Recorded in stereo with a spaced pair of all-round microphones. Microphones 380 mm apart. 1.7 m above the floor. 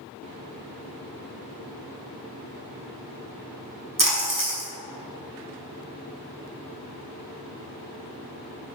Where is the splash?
55° right (ahead or behind), 1.6 m.